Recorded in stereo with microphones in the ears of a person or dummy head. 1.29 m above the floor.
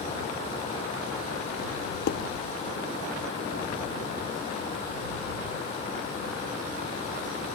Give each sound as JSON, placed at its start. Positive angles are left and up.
{"t": 2.1, "sound": "dishes clattering", "side_deg": 60}